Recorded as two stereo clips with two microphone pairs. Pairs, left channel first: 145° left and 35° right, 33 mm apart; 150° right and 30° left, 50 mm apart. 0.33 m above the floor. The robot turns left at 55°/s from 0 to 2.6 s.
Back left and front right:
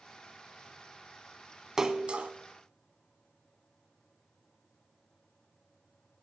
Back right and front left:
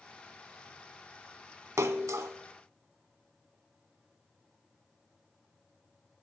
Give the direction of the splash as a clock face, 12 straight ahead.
11 o'clock.